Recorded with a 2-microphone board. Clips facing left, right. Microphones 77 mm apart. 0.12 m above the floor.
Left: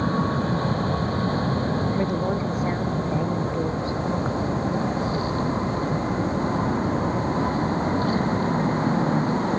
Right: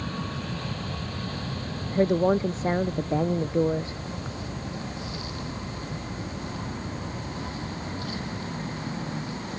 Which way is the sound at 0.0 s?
40° left (ahead or behind).